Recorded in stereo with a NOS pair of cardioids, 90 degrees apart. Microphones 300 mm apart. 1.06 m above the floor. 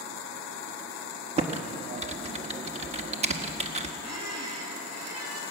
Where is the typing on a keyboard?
20° right, 1.4 m.